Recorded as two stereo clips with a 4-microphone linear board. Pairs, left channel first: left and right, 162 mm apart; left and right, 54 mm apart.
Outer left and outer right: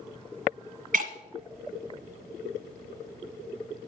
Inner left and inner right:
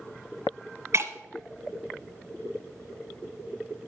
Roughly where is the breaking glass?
Right.